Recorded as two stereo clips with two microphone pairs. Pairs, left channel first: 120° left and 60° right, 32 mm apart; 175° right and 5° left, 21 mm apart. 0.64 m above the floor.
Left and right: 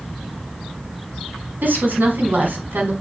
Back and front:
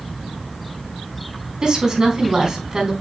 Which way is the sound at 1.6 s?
50° right.